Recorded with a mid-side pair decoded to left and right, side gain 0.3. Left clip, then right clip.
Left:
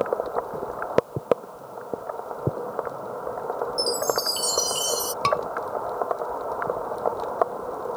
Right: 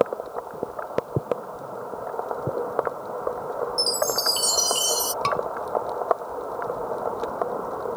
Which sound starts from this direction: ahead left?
A scream, at 5.2 s.